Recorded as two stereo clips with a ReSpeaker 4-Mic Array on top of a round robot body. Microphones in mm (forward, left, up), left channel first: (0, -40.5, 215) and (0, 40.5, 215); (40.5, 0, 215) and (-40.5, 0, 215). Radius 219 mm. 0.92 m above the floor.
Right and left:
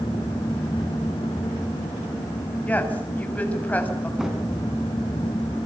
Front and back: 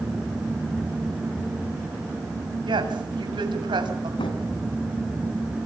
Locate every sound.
2.6 s a woman speaking: 160° right, 7 m
4.2 s a drawer: 5° left, 3.5 m